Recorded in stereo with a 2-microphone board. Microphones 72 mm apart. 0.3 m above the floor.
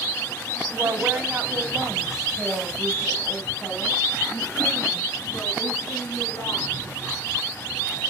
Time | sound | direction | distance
0.7 | a woman speaking | 40° right (ahead or behind) | 1.5 m